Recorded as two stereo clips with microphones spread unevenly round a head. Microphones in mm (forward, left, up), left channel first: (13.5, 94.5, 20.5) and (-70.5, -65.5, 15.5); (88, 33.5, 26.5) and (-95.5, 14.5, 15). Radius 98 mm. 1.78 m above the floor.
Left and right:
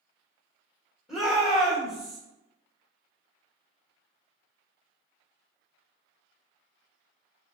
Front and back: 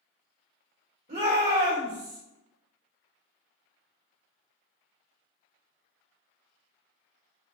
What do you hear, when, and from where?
1.1 s a shout: 145° left, 1.5 m